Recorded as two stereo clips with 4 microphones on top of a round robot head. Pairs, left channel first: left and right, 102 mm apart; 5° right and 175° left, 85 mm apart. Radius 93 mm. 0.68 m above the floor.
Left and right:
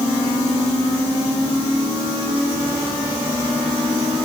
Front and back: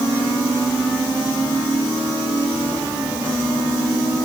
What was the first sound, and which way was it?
Only background noise.